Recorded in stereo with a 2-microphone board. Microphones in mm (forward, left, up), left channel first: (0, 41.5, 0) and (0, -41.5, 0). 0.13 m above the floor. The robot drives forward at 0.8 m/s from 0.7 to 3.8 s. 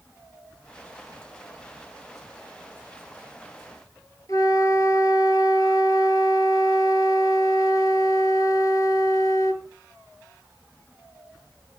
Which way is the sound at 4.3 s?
50° left (ahead or behind).